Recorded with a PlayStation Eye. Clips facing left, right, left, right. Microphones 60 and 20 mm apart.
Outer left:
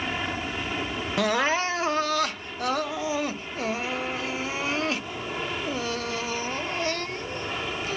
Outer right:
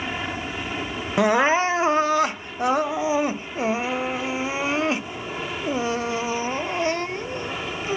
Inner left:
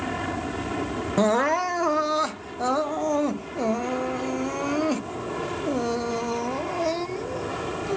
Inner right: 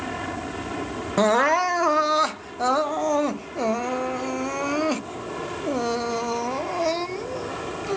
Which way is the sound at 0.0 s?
Centre (ahead or behind).